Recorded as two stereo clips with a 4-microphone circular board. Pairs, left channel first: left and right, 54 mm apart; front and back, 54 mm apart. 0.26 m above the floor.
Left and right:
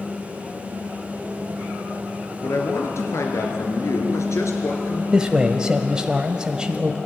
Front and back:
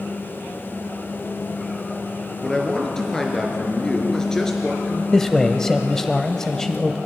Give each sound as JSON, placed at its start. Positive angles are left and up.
{"t": 2.4, "sound": "a man speaking", "azimuth_deg": 80, "distance_m": 3.5}
{"t": 5.1, "sound": "a man speaking", "azimuth_deg": -60, "distance_m": 0.9}